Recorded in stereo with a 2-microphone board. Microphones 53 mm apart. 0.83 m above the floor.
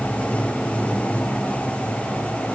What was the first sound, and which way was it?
Running water, 25° left (ahead or behind).